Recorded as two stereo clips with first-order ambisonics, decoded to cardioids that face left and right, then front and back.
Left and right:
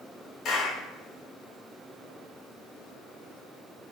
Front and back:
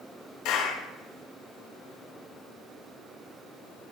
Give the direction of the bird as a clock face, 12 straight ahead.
No bird in this recording.